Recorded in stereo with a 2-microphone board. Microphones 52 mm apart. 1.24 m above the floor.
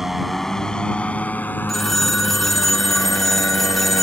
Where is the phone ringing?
5° left (ahead or behind).